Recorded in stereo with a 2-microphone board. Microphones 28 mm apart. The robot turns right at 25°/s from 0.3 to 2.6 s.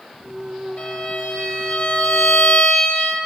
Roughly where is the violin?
Ahead left.